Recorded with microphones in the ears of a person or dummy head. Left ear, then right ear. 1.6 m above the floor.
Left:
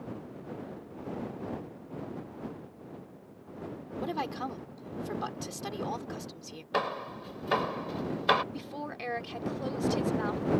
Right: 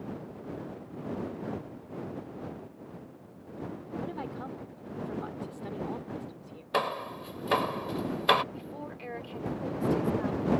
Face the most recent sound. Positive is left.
turn(degrees=35)  # may be behind; listen again after turning